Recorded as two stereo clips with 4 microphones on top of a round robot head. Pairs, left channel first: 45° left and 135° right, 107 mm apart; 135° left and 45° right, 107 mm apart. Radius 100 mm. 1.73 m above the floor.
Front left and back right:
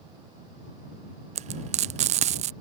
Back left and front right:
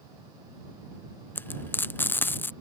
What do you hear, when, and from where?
1.4 s frying: 155° right